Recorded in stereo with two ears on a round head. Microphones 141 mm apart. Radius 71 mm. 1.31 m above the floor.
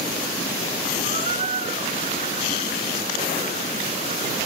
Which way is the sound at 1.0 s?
40° right (ahead or behind).